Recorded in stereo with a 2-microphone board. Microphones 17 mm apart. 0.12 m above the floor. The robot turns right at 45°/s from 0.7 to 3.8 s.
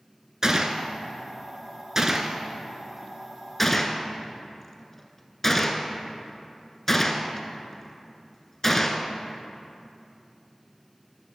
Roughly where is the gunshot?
Right.